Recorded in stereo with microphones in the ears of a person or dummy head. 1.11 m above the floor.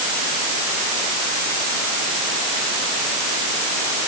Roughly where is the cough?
No cough in this recording.